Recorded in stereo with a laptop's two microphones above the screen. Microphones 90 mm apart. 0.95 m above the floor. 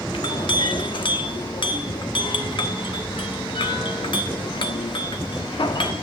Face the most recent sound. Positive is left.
turn(degrees=60)  # may be behind; listen again after turning